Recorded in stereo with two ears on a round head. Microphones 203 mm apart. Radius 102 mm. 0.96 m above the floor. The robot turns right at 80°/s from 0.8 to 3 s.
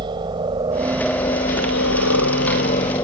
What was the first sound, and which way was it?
A helicopter, 20° right (ahead or behind).